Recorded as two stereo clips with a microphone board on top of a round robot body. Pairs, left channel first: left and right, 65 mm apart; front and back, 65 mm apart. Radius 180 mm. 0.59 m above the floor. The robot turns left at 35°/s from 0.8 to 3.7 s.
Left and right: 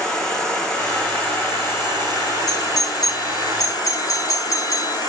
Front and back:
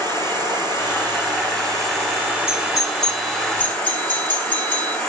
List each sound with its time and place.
0.0 s an insect: 170° left, 1.8 m; by 5.1 s 70° left, 1.8 m
2.5 s a doorbell: 105° left, 3 m; by 5.0 s 60° left, 3 m